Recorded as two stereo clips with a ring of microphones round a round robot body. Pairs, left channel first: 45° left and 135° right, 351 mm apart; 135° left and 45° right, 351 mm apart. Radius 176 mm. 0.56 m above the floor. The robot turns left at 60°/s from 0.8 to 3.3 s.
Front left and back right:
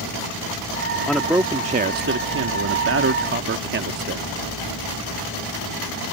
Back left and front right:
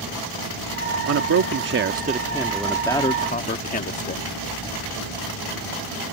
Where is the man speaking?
40° right; by 4.2 s 175° right.